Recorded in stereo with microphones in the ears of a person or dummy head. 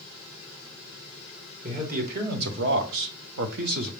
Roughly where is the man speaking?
Right.